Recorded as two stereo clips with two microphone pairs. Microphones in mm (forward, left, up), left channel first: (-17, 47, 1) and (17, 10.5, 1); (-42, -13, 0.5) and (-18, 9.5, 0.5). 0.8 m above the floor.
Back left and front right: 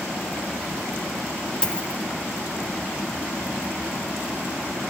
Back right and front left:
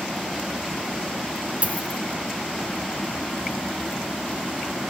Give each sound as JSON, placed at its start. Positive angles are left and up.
{"t": 1.6, "sound": "a dropped coin", "azimuth_deg": 65, "distance_m": 0.9}